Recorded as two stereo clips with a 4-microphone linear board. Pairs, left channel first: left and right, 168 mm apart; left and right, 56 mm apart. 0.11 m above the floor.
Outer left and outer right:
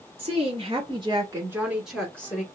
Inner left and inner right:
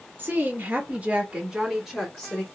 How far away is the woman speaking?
About 1.6 m.